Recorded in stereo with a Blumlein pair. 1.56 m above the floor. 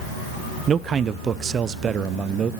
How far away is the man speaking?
About 0.7 m.